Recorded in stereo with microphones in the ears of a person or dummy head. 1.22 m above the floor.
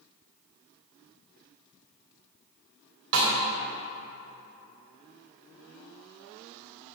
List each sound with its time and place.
3.1 s a snare drum: 80° right, 2.5 m